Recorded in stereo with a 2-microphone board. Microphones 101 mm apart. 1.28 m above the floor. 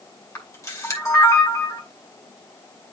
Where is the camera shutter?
30° left (ahead or behind), 2.5 m.